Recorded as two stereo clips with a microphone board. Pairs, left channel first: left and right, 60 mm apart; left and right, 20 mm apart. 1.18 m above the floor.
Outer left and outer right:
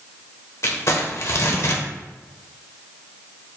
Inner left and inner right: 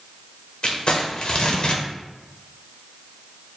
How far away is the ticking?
No ticking in this recording.